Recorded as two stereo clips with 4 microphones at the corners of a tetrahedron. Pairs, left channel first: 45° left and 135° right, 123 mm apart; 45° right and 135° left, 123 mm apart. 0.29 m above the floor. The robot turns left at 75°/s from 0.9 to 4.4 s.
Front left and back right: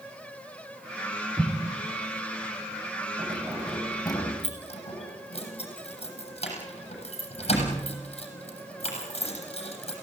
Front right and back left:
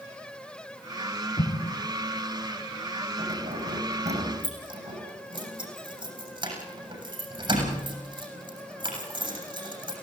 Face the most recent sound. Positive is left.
turn(degrees=85)